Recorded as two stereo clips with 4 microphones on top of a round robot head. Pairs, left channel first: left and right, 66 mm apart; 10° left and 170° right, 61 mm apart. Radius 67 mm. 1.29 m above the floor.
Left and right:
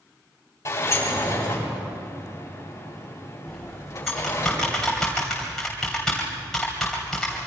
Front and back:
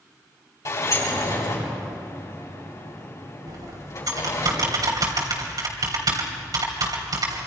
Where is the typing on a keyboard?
175° left, 3 m.